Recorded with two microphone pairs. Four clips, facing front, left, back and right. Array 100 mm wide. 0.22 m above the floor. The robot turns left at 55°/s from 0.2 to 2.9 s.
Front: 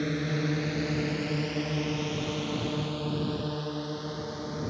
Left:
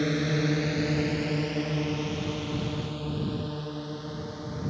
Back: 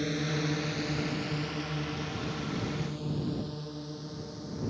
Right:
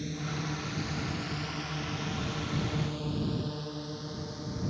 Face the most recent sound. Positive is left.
turn(degrees=10)